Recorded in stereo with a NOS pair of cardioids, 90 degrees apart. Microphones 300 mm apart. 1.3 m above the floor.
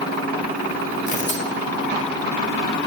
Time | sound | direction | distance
1.1 | tearing paper | 25° left | 1.8 m